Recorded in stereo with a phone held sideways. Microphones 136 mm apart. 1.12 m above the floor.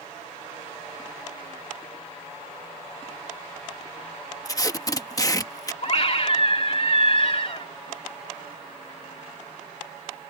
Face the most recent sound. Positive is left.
turn(degrees=50)  # may be behind; listen again after turning